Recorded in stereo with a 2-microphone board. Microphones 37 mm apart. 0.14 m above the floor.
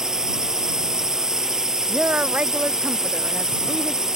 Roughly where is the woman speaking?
Right.